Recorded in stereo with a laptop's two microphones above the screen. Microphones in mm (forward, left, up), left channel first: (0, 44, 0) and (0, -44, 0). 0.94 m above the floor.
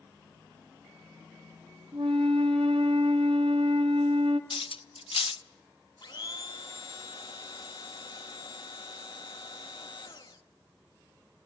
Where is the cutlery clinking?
85° left, 0.6 m.